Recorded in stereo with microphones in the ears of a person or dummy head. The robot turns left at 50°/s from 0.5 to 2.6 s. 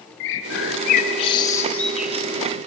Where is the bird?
70° left (ahead or behind), 0.8 m; by 2.6 s 35° right (ahead or behind), 0.8 m.